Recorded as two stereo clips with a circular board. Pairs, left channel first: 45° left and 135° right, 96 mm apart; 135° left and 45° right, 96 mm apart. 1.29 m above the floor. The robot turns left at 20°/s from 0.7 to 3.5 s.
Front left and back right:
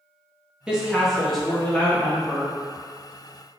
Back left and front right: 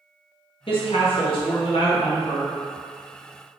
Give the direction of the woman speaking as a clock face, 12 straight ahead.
7 o'clock.